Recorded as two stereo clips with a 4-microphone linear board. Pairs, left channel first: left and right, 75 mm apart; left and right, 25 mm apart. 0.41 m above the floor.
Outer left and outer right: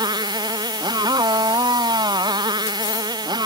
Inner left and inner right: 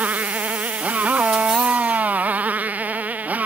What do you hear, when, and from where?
0.0 s a motorcycle: 75° right (ahead or behind)